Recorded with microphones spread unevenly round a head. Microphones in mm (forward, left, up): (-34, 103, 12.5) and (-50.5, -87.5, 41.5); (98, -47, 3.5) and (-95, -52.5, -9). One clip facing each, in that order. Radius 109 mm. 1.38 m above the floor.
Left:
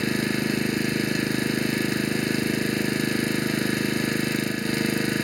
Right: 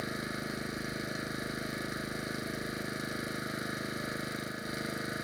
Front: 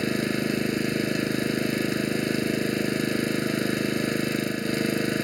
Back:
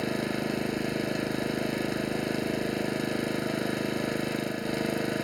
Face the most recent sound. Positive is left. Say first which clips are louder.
# left 14 dB, front 4 dB
turn(degrees=70)